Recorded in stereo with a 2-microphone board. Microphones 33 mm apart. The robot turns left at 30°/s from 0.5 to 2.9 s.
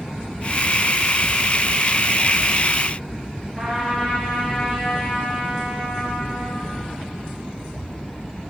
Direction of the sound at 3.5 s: Centre (ahead or behind).